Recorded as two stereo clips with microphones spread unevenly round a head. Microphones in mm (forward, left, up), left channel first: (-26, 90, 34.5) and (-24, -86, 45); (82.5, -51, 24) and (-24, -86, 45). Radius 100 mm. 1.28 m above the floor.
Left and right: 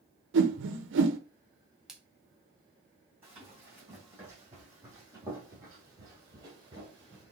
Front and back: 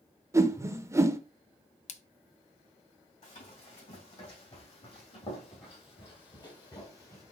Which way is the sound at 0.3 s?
95° right.